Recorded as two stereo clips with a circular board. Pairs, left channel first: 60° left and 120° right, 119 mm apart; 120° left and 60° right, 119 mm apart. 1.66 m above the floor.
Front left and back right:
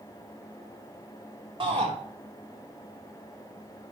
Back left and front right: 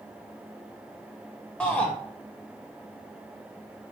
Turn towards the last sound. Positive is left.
turn(degrees=-160)